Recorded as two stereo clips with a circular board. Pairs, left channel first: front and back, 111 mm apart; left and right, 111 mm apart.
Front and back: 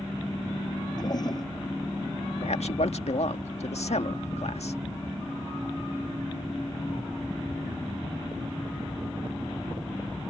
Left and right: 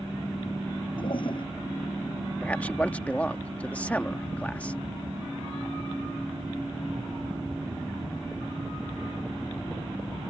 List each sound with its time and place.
1.0 s a toilet flushing: 50° left
2.4 s a man speaking: 15° left